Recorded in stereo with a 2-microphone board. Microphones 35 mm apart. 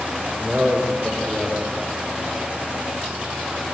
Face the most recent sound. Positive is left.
turn(degrees=-25)  # may be behind; listen again after turning